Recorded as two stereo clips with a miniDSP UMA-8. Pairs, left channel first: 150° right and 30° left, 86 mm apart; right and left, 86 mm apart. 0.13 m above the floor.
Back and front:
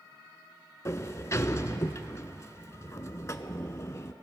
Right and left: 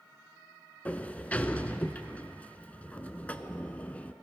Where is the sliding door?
150° right, 0.5 m.